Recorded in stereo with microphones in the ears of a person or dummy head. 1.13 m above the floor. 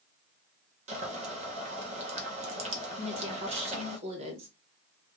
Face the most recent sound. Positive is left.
turn(degrees=-35)  # may be behind; listen again after turning